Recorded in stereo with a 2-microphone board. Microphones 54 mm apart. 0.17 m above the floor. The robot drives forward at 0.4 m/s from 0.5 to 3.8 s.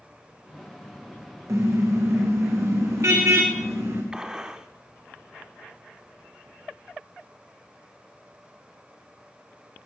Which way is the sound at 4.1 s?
15° right (ahead or behind).